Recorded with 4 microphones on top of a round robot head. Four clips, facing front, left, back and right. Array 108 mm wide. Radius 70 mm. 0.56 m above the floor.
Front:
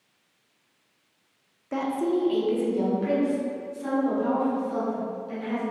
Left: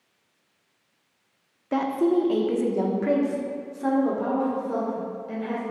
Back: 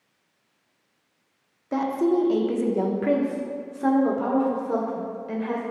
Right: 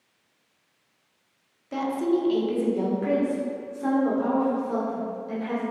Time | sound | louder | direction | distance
1.7 | a woman speaking | left 3 dB, back 3 dB | 105° left | 1.2 m